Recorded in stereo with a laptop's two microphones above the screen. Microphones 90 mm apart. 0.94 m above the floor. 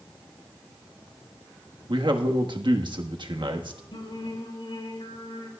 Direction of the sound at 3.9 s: 80° left.